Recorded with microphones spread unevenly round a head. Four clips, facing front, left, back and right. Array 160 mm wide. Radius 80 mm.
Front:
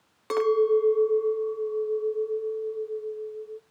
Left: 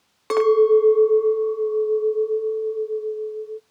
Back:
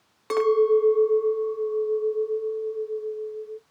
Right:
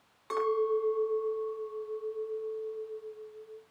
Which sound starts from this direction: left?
A clink, at 0.3 s.